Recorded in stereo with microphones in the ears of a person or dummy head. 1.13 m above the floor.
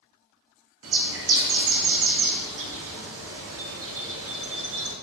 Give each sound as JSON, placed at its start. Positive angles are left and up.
{"t": 0.8, "sound": "a bird", "side_deg": -70, "distance_m": 0.8}